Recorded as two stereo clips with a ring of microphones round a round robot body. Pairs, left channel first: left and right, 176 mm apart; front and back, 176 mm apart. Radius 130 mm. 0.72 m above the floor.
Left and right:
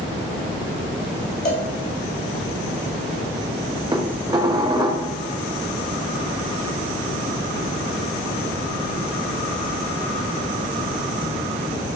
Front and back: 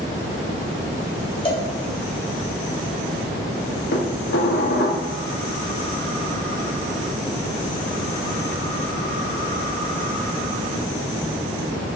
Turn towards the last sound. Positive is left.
turn(degrees=-25)